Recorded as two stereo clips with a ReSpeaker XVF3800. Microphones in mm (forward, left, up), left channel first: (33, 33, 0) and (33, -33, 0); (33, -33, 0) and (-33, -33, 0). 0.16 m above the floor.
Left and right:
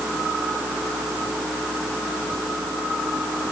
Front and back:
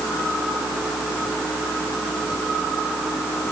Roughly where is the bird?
No bird in this recording.